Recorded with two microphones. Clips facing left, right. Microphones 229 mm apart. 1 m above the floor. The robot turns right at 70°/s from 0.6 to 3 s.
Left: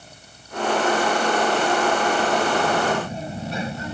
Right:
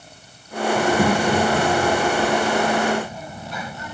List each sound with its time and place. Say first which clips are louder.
0.8 s a child speaking: right 4 dB; 130° right; by 3.9 s 30° left